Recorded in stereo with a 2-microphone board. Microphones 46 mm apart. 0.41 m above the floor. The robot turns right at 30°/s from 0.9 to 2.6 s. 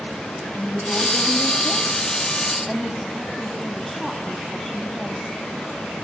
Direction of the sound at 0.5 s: 125° left.